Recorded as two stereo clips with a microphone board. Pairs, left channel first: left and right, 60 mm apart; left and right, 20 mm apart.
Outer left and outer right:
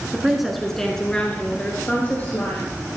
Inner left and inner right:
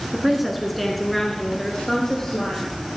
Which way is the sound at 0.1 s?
10° right (ahead or behind).